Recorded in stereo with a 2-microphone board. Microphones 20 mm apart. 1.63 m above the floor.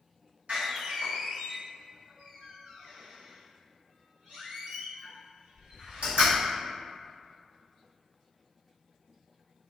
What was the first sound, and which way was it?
A door slam, 70° right (ahead or behind).